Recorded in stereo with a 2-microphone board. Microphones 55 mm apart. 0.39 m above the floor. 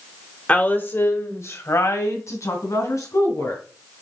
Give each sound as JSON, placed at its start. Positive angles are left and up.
{"t": 0.5, "sound": "a woman speaking", "side_deg": 25, "distance_m": 1.2}